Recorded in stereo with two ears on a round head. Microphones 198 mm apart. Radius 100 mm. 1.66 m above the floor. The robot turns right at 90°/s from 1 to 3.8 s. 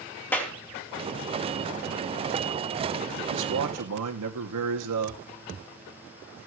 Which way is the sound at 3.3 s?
125° right.